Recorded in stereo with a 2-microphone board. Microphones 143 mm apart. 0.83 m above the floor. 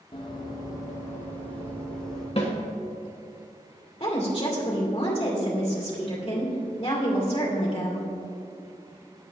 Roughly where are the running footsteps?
Left.